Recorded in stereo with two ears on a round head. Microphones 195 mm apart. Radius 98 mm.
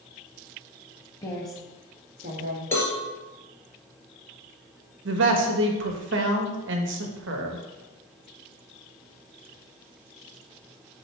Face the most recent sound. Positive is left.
turn(degrees=-65)  # may be behind; listen again after turning